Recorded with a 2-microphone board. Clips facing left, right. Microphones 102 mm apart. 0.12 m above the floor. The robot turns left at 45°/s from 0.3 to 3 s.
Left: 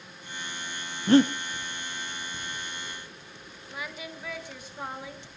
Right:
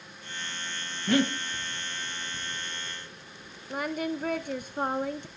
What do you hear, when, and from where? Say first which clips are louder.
1.1 s breathing: left 6 dB; 30° left (ahead or behind), 1.3 m
3.7 s singing: right 9 dB; 50° right (ahead or behind), 0.7 m